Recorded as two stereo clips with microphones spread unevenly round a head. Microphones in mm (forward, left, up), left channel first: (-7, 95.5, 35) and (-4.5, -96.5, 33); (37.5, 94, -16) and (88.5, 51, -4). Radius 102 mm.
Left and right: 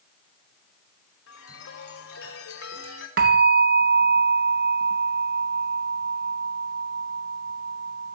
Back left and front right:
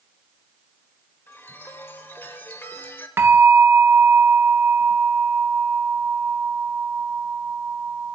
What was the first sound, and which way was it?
A chime, 85° left.